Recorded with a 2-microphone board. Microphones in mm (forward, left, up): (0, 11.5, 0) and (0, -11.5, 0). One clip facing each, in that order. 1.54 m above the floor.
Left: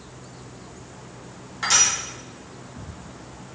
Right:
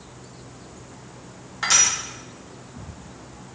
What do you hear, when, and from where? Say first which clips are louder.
1.6 s crushing: right 1 dB; 10° right (ahead or behind), 0.9 m